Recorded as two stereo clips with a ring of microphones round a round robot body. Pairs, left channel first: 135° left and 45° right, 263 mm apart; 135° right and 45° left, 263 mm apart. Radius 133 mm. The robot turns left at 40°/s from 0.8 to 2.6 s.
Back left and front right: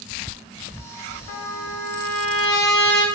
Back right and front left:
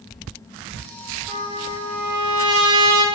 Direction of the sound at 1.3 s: 130° left.